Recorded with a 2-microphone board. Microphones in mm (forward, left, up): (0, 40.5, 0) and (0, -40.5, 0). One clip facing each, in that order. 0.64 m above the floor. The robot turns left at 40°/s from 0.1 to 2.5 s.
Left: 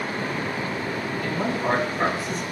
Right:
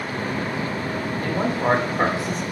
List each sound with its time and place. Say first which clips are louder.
1.2 s a man speaking: right 3 dB; 50° right, 1.8 m; by 2.4 s 100° right, 1.8 m